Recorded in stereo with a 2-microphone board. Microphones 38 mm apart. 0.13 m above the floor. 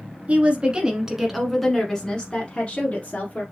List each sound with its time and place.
0.3 s a woman speaking: 35° right (ahead or behind), 1.3 m; by 3.4 s 40° left (ahead or behind), 1.7 m